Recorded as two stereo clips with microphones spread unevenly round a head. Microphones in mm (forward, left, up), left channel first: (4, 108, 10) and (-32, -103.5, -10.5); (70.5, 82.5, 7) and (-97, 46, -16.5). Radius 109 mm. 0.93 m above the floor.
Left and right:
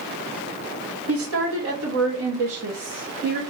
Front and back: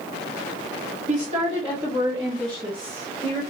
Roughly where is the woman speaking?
Right.